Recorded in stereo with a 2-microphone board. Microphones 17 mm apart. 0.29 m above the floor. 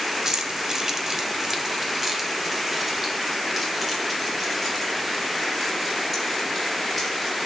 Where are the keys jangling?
35° right (ahead or behind), 0.9 m; by 7.4 s 5° left (ahead or behind), 4.5 m.